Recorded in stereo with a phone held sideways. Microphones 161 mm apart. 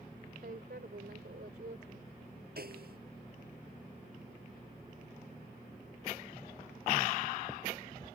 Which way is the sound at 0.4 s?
85° right.